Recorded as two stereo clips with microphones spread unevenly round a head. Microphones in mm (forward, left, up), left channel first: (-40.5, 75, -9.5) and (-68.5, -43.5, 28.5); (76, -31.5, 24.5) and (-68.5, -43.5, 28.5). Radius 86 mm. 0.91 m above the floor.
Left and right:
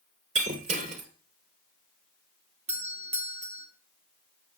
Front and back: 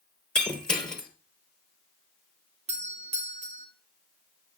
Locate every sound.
0.3 s breaking glass: 80° right, 2.5 m
2.7 s a doorbell: 135° right, 2.5 m